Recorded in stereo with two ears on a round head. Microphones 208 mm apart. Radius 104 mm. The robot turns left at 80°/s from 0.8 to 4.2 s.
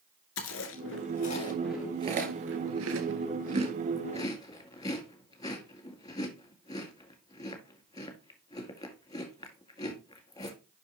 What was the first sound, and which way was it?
Chewing, 60° left (ahead or behind).